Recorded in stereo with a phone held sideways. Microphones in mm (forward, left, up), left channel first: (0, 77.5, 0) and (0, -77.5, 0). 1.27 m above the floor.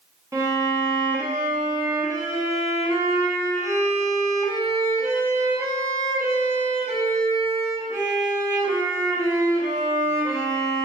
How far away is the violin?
About 0.7 m.